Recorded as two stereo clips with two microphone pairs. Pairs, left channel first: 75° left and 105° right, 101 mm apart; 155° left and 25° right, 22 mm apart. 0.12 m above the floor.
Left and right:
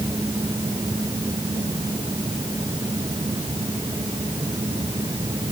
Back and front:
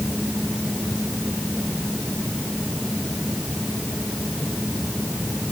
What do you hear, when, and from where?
Only background noise.